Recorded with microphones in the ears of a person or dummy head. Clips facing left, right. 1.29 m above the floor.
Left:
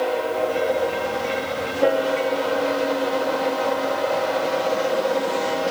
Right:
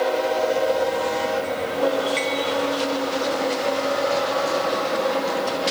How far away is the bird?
I don't hear a bird.